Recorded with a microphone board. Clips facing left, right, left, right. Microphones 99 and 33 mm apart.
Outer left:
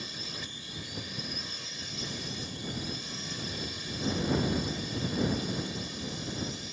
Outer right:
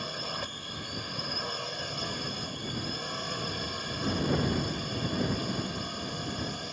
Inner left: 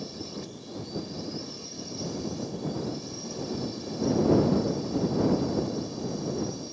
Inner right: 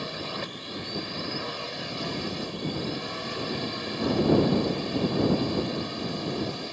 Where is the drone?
55° right (ahead or behind).